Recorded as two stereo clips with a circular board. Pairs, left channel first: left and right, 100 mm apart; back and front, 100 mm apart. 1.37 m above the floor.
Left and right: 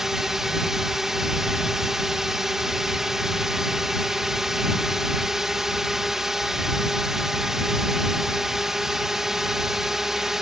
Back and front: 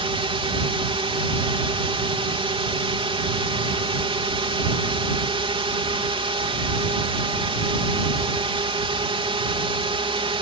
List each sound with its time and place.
0.0 s a drone: 5° right